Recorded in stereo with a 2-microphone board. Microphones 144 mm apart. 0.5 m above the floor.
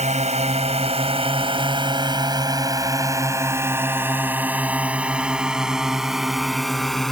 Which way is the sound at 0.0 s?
55° right (ahead or behind).